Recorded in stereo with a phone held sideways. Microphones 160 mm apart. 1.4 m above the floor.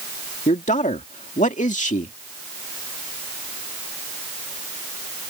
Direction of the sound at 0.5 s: 50° left (ahead or behind).